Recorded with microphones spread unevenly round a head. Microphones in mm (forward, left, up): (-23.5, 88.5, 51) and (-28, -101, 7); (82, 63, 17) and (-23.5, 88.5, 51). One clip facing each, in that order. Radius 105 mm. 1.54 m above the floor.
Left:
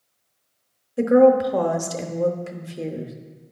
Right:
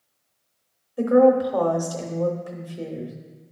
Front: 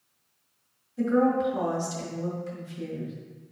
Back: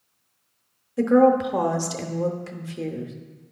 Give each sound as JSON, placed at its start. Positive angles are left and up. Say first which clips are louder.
{"t": 1.0, "sound": "a woman speaking", "louder": "left 2 dB, back 6 dB", "azimuth_deg": 155, "distance_m": 0.8}